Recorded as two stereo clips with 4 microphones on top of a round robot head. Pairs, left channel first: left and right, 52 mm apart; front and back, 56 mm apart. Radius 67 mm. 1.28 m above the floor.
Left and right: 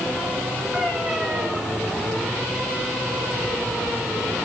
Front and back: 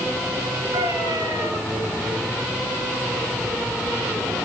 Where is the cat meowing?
170° right, 9 m.